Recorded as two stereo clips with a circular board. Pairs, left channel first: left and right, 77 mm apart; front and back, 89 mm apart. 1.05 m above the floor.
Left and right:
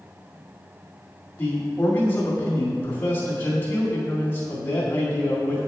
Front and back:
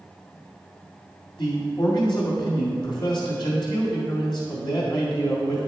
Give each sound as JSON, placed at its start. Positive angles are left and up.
{"t": 1.4, "sound": "a man speaking", "azimuth_deg": 30, "distance_m": 1.9}